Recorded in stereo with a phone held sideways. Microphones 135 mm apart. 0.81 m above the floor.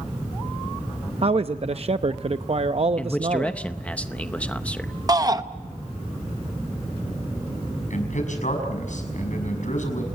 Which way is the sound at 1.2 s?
50° right (ahead or behind).